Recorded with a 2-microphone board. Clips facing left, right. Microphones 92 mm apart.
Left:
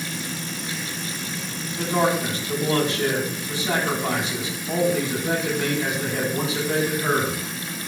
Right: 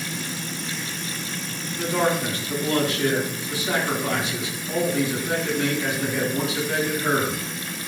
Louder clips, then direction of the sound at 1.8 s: Left 1 dB; 30° left (ahead or behind).